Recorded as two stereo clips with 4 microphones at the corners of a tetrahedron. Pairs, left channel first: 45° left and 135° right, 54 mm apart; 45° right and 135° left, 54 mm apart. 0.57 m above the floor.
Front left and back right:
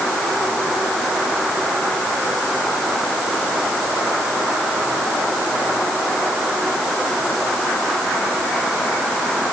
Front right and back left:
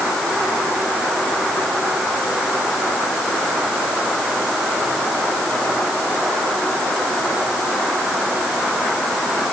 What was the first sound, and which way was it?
Only background noise.